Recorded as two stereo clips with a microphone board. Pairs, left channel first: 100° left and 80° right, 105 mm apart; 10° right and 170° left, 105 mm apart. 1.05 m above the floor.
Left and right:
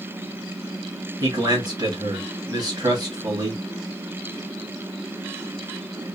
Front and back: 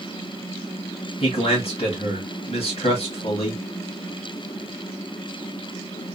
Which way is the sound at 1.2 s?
30° right.